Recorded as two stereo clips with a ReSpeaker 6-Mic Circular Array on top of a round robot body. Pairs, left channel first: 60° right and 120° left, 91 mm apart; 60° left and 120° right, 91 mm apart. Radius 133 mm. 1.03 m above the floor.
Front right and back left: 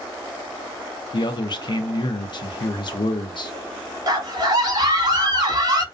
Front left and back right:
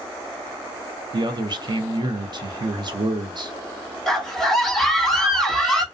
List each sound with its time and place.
1.1 s a man speaking: 90° right, 0.6 m
4.1 s a scream: 145° left, 1.0 m